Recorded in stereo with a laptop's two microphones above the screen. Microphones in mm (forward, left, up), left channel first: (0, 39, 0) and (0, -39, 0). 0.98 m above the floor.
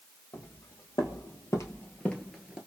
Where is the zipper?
No zipper in this recording.